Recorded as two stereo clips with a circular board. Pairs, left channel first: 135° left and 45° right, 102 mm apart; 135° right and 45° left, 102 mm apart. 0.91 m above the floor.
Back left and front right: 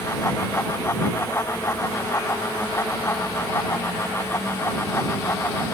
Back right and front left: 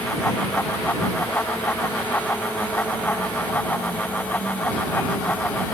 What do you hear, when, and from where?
Only background noise.